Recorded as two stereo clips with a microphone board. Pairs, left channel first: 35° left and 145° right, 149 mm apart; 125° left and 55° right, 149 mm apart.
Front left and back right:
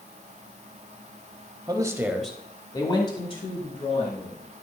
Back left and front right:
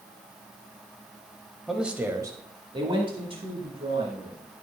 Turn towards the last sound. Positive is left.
turn(degrees=-5)